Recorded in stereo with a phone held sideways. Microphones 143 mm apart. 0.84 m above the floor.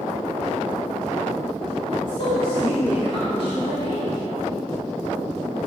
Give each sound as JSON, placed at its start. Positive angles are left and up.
{"t": 1.9, "sound": "a woman speaking", "side_deg": 35, "distance_m": 1.7}